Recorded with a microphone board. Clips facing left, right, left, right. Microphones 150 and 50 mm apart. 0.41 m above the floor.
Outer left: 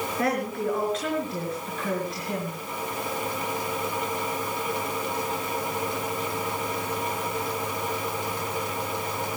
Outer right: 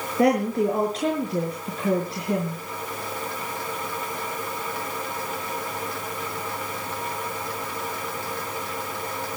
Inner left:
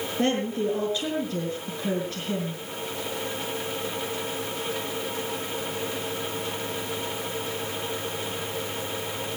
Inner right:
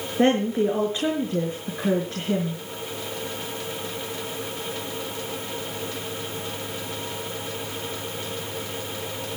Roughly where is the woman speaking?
Right.